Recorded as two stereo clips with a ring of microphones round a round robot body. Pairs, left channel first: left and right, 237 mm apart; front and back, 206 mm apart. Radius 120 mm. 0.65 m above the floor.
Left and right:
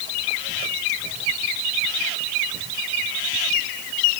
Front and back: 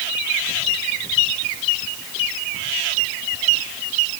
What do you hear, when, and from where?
Only background noise.